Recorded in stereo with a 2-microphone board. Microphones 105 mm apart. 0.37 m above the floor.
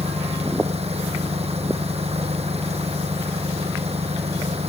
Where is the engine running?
80° right.